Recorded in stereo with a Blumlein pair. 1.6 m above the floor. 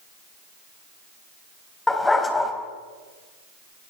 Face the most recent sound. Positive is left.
turn(degrees=10)